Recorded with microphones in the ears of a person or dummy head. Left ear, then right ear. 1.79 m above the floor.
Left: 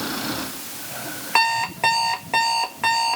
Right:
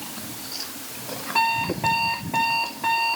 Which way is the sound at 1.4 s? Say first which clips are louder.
Left 3 dB; 60° left (ahead or behind).